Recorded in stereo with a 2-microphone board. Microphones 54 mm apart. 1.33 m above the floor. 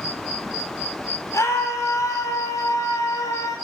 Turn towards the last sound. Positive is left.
turn(degrees=85)